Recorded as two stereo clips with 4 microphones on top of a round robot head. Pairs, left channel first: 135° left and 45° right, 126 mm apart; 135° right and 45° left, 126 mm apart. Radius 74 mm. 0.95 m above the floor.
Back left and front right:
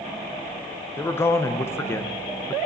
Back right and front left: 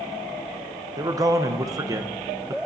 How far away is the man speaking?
About 0.9 m.